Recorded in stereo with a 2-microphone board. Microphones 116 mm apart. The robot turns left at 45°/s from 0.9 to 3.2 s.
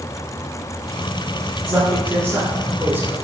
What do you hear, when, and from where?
1.6 s a man speaking: 15° right (ahead or behind), 1.1 m